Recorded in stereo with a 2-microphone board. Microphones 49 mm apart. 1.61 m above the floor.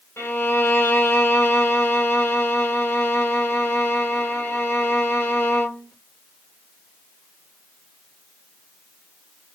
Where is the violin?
65° left (ahead or behind), 1.3 m.